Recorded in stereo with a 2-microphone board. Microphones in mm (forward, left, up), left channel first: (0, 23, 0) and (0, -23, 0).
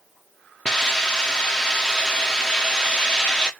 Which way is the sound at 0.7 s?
20° left (ahead or behind).